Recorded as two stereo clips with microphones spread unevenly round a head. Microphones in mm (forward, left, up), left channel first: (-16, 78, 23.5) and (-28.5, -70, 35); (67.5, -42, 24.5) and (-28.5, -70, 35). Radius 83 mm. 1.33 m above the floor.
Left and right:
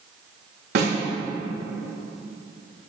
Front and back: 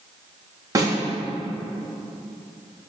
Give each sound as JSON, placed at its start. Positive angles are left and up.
{"t": 0.8, "sound": "a snare drum", "azimuth_deg": -110, "distance_m": 3.5}